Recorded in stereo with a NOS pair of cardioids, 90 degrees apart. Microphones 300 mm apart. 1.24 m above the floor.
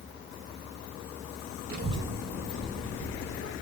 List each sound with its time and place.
1.7 s a child speaking: 30° right, 0.6 m; by 3.5 s 40° left, 1.3 m